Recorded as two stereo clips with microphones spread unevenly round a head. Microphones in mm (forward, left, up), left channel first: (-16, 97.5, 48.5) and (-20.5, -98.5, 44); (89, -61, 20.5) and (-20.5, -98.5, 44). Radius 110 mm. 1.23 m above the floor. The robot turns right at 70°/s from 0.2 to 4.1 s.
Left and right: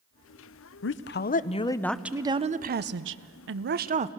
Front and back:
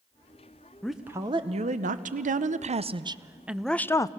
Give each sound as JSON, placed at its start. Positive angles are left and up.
{"t": 0.8, "sound": "a woman speaking", "azimuth_deg": 100, "distance_m": 0.8}